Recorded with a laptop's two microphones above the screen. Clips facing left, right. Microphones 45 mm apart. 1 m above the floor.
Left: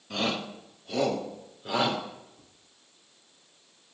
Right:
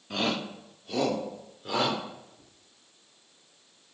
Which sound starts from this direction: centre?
A shout, at 0.1 s.